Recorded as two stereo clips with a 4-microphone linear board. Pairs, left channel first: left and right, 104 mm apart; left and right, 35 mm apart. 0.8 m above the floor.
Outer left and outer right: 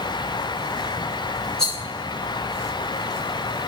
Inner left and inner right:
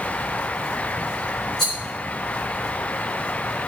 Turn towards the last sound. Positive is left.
turn(degrees=5)  # may be behind; listen again after turning